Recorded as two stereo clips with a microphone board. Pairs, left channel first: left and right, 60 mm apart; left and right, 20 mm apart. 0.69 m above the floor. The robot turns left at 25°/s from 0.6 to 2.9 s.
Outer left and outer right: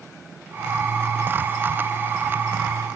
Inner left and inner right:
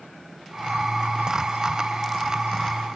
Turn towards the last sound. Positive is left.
No sound to turn to.